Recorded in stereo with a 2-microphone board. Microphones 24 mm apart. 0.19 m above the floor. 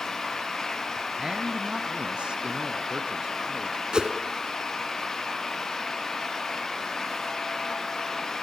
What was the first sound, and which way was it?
A man speaking, 30° right (ahead or behind).